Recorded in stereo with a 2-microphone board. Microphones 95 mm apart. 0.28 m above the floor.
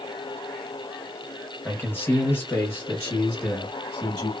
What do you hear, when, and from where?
1.6 s a man speaking: 20° left (ahead or behind), 0.9 m; by 4.3 s 25° left (ahead or behind), 1.7 m